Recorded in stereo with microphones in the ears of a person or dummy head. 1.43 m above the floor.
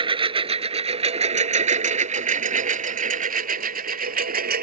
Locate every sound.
0.0 s a lawn mower: 25° right (ahead or behind); by 4.6 s 50° right (ahead or behind)